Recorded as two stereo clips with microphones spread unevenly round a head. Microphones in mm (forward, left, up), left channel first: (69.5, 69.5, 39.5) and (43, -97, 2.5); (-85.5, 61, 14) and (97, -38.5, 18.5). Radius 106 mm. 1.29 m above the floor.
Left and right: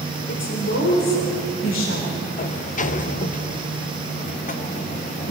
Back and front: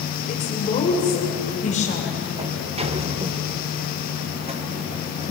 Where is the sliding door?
35° left, 1.1 m.